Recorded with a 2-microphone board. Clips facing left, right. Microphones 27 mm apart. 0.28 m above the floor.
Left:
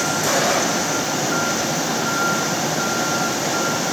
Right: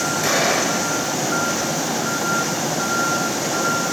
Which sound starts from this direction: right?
An explosion, at 0.2 s.